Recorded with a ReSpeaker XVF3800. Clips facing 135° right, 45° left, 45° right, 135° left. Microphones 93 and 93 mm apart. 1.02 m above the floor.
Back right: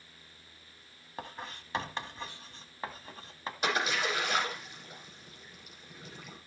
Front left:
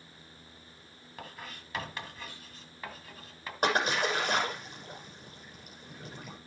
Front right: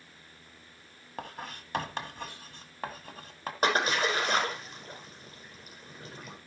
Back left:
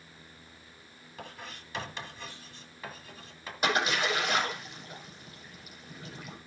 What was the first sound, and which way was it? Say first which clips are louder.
Writing: back right 3 dB, front right 4 dB; 75° right.